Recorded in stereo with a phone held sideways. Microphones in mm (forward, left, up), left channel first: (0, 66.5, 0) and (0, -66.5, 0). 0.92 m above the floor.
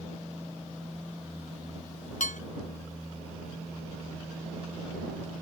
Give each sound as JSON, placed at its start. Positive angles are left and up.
{"t": 2.2, "sound": "dishes clattering", "side_deg": 75}